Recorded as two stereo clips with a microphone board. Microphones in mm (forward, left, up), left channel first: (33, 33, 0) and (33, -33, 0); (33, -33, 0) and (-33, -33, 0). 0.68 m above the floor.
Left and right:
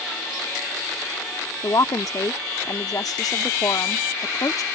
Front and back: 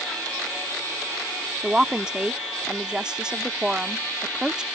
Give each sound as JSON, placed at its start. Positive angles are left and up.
{"t": 1.6, "sound": "a woman speaking", "azimuth_deg": 105}